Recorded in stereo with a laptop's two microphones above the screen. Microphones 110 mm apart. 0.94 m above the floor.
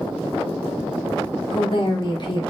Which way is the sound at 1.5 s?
45° left (ahead or behind).